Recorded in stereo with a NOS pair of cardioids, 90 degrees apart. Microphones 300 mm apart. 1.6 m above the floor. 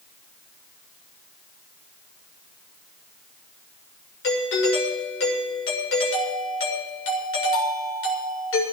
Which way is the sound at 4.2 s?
45° left.